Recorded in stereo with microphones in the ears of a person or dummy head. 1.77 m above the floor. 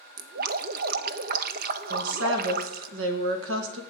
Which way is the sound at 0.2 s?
50° right (ahead or behind).